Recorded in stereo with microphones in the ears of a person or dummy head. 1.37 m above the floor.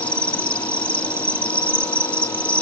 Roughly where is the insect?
Centre.